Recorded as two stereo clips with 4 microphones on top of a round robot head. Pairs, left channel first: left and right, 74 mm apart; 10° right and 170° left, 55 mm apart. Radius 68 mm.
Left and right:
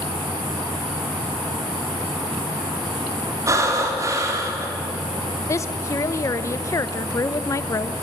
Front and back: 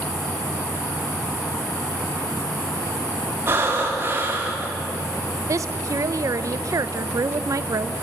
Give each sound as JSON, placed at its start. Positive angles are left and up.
{"t": 3.5, "sound": "breathing", "azimuth_deg": -135, "distance_m": 3.5}
{"t": 5.5, "sound": "a woman speaking", "azimuth_deg": 140, "distance_m": 0.6}